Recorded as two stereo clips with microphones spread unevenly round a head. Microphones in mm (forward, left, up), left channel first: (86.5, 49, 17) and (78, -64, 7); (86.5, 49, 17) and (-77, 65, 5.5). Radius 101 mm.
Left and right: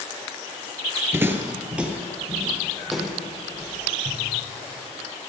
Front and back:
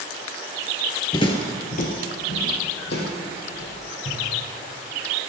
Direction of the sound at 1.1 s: 35° right.